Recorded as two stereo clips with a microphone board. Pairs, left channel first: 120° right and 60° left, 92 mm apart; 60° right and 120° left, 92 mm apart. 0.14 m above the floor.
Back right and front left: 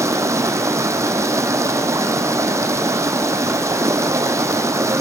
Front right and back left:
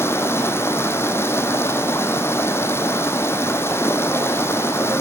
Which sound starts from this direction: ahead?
Running water, at 0.0 s.